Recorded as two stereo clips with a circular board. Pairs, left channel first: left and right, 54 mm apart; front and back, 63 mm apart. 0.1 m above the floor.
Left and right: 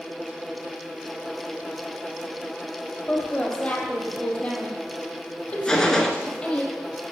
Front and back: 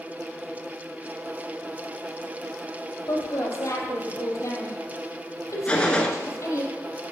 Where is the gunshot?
35° left, 1.0 m.